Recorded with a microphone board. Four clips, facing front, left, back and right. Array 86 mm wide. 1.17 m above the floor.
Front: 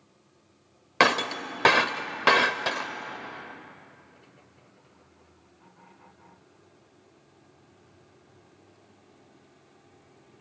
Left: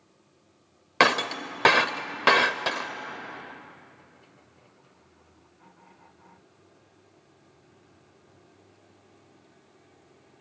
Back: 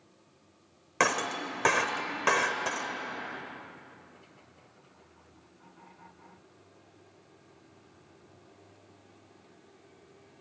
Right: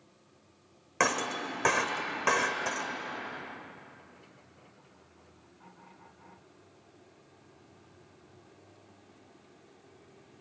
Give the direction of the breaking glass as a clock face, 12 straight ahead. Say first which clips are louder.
Left 6 dB, front 5 dB; 10 o'clock.